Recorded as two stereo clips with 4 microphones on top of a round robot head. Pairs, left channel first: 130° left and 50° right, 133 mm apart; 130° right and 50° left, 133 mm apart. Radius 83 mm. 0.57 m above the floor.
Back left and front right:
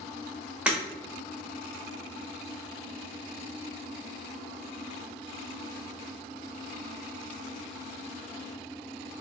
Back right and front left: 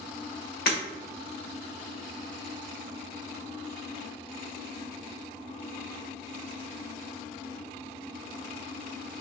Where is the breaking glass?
130° right, 1.0 m.